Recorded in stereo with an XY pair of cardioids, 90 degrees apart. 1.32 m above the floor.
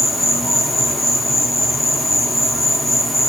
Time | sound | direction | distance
0.0 | an insect | 10° left | 0.9 m